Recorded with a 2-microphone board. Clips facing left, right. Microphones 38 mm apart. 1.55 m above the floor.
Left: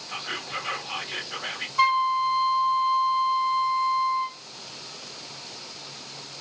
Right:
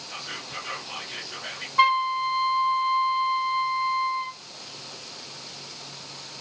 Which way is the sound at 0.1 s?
25° left (ahead or behind).